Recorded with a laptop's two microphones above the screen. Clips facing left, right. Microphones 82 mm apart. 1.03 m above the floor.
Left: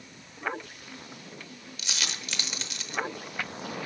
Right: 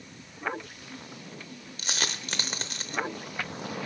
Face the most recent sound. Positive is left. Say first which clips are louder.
# right 3 dB
turn(degrees=-40)  # may be behind; listen again after turning